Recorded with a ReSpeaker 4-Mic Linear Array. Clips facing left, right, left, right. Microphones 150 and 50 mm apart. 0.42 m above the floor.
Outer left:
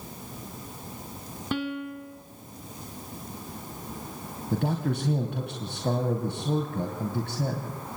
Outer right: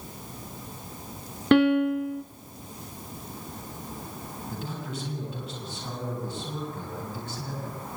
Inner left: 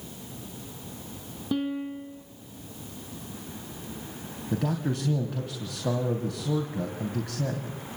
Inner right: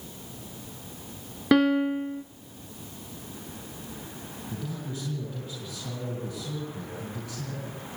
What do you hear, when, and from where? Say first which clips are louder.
1.5 s a piano: outer right 12 dB, inner right 9 dB; 75° right (ahead or behind), 0.9 m
4.5 s a man speaking: outer left 10 dB, inner left 9 dB; 65° left (ahead or behind), 3 m